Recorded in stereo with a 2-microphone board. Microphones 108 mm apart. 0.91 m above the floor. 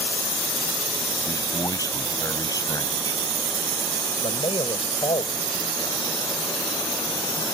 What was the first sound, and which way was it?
A man speaking, 30° left (ahead or behind).